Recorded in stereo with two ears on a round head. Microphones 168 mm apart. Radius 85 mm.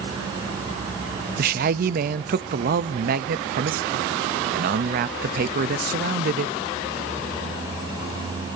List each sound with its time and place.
1.4 s a man speaking: 45° right (ahead or behind), 0.7 m